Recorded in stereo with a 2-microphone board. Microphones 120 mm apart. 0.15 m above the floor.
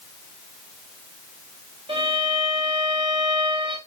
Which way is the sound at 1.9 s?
50° right (ahead or behind).